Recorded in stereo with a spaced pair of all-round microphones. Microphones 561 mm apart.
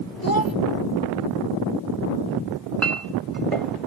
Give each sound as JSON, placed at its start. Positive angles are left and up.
{"t": 0.2, "sound": "a child speaking", "side_deg": 35}
{"t": 2.5, "sound": "a clink", "side_deg": -65}